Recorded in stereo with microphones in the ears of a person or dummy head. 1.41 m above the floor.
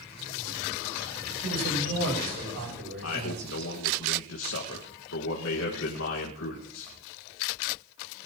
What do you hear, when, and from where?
1.4 s a man speaking: 70° right (ahead or behind), 9 m; by 3.7 s 55° right (ahead or behind), 8.5 m
3.0 s a man speaking: 75° left (ahead or behind), 2 m